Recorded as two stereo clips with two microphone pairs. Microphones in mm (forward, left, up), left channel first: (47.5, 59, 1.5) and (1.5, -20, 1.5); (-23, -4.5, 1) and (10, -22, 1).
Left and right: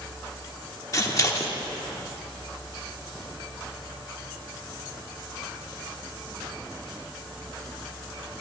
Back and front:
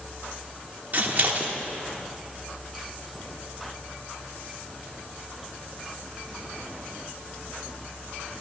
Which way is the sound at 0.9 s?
10° left.